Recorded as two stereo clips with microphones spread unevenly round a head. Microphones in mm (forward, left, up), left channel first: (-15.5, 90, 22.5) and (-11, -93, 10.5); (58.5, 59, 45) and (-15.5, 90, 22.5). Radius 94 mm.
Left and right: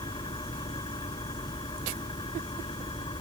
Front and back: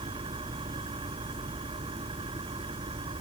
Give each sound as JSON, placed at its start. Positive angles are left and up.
{"t": 0.0, "sound": "an engine running", "azimuth_deg": 160}